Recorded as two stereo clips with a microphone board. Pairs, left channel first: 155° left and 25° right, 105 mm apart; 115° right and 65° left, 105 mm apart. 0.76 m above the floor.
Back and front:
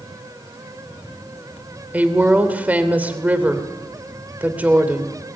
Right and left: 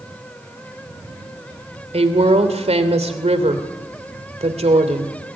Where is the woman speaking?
55° left, 3 m.